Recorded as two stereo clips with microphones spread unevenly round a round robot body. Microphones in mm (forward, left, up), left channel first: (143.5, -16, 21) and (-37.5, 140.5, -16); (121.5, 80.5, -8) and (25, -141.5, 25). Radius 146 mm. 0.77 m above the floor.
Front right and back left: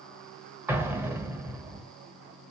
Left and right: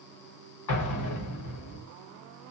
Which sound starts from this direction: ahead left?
An explosion, at 0.7 s.